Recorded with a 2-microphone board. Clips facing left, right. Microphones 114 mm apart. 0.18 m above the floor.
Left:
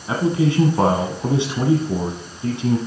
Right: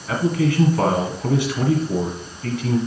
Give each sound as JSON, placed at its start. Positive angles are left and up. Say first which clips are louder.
{"t": 0.1, "sound": "a man speaking", "louder": "left 1 dB", "side_deg": 25, "distance_m": 1.4}